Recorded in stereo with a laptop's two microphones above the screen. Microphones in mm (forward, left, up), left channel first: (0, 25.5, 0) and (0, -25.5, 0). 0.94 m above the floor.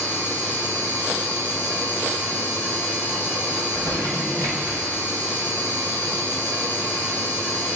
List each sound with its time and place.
0.0 s a machine running: 10° left (ahead or behind), 3.5 m
3.6 s crumpling: 65° right (ahead or behind), 1.6 m